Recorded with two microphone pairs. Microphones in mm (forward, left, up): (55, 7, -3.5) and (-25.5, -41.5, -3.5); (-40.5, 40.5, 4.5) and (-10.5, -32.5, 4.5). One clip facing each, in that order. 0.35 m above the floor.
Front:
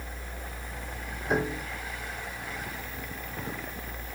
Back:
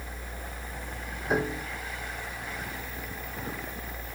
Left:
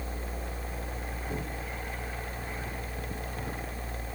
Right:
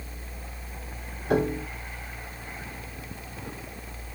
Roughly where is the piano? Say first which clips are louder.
Even, right 15 dB; ahead right.